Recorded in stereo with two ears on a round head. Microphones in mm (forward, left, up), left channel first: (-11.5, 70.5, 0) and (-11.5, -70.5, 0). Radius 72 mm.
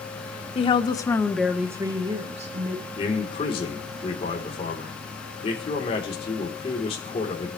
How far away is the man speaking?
About 4 m.